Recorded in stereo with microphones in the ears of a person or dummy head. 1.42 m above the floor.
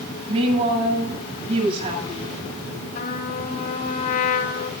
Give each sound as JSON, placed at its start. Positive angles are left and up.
{"t": 0.3, "sound": "a woman speaking", "side_deg": -30, "distance_m": 9.0}
{"t": 3.0, "sound": "a trumpet", "side_deg": 45, "distance_m": 4.0}